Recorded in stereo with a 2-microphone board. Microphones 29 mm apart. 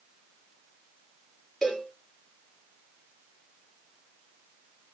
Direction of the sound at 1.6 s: 5° left (ahead or behind).